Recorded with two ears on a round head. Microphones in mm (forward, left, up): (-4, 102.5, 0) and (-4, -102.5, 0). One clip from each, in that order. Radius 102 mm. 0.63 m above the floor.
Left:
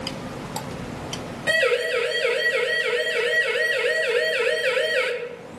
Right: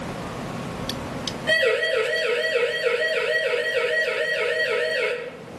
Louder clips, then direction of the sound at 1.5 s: Even; 65° left (ahead or behind).